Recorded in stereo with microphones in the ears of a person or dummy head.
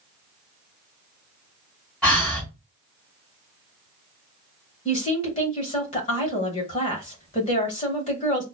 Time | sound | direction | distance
2.0 | breathing | centre (ahead or behind) | 2.5 m
4.8 | a woman speaking | 35° left (ahead or behind) | 1.4 m